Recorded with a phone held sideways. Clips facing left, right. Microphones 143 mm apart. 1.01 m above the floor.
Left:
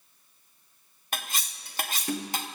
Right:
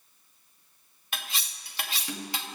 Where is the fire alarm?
No fire alarm in this recording.